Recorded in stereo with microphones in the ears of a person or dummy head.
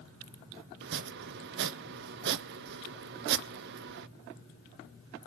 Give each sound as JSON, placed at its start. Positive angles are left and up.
{"t": 0.8, "sound": "chopping", "side_deg": -55, "distance_m": 0.6}